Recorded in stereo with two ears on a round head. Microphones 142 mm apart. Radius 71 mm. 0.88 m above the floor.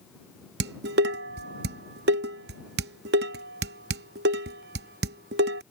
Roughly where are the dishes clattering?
Right.